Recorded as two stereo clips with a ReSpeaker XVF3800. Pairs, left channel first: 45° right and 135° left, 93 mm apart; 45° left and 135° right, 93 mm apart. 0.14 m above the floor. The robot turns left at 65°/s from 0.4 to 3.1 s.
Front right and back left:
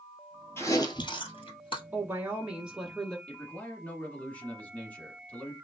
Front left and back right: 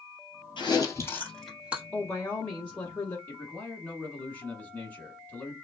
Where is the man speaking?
5° left, 1.1 m.